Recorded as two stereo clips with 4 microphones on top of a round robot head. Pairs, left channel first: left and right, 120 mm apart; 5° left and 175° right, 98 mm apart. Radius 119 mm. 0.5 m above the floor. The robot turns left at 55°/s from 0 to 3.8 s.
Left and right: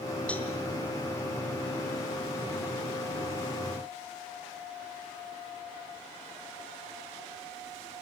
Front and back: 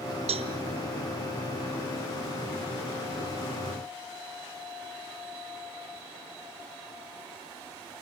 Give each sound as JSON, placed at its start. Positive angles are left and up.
{"t": 0.3, "sound": "a cowbell", "azimuth_deg": 170, "distance_m": 1.5}